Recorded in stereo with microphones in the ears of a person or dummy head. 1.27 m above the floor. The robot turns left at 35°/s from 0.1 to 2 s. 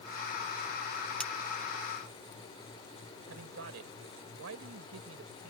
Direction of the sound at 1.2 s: 5° left (ahead or behind).